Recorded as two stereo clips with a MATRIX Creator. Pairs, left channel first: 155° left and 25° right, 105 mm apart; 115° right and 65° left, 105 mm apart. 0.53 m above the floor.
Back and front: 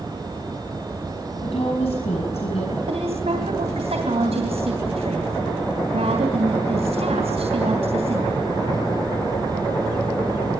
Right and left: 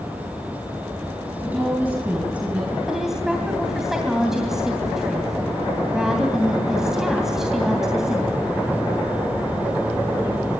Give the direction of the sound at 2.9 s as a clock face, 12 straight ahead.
1 o'clock.